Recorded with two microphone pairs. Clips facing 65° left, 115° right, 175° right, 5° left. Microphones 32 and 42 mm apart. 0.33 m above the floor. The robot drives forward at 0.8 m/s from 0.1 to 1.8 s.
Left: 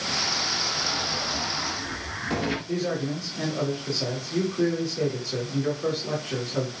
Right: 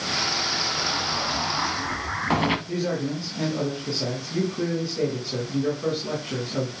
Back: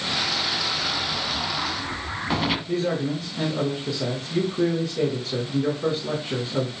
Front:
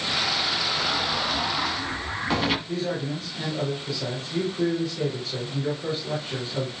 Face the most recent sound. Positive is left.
turn(degrees=-175)